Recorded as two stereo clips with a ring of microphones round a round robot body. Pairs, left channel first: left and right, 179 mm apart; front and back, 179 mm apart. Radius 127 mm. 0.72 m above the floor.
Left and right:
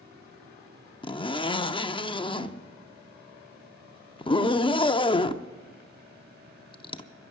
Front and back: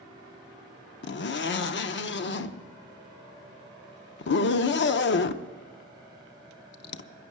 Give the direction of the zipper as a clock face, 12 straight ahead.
11 o'clock.